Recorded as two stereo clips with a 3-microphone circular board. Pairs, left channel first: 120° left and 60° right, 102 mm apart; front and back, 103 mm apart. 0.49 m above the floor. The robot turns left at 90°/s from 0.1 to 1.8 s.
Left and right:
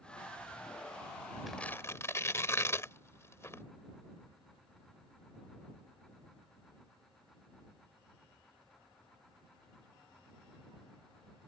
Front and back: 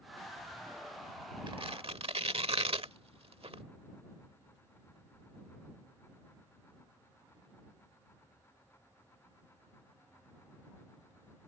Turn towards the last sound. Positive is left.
turn(degrees=180)